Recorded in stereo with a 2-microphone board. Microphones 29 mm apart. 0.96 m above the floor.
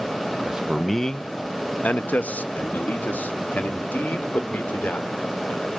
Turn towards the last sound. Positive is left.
turn(degrees=85)